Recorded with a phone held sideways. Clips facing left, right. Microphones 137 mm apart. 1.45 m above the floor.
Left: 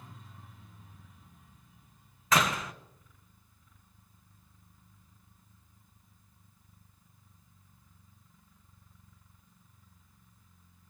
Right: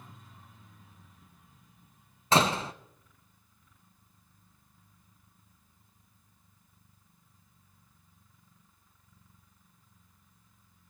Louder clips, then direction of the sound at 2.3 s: Right 3 dB; 30° right (ahead or behind).